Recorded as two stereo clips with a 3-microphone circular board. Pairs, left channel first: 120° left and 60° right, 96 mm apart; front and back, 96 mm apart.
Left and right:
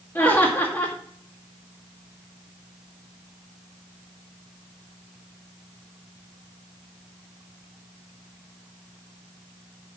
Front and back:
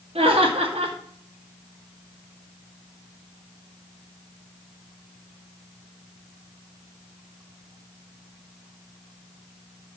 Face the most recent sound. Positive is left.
turn(degrees=-175)